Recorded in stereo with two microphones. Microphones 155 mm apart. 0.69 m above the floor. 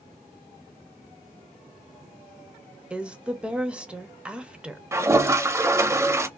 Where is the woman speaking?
5° right (ahead or behind), 0.6 m.